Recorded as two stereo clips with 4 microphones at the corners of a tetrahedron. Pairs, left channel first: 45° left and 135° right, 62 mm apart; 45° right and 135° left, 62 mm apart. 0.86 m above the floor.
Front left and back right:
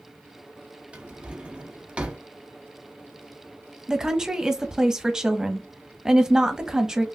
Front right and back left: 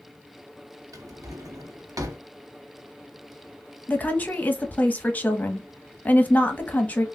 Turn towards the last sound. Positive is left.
turn(degrees=-65)